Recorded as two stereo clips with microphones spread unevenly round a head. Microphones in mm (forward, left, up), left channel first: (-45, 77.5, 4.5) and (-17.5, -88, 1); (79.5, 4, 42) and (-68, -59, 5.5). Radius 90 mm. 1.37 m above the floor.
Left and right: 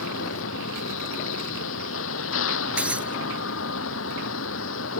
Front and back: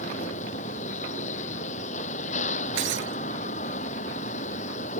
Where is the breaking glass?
165° right.